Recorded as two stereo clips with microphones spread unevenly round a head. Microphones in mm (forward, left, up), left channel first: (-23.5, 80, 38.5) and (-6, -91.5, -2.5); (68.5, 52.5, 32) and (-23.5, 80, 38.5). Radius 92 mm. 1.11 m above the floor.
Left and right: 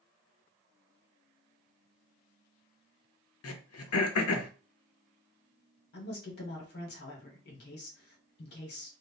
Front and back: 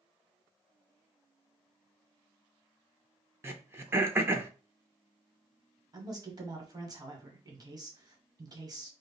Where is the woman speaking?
120° left, 1.2 m.